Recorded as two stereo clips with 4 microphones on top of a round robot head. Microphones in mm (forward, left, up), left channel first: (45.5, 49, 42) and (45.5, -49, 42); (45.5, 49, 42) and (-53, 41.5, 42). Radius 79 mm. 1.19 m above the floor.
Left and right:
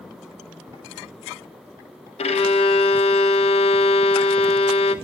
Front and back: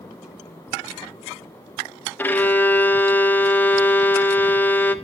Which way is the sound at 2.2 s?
75° left.